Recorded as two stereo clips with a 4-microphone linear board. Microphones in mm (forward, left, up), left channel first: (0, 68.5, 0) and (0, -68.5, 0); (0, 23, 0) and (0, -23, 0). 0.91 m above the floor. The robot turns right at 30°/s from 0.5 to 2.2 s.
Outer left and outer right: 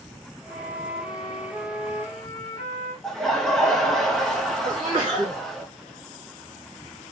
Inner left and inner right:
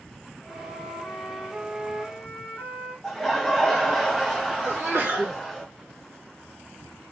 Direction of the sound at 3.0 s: Centre (ahead or behind).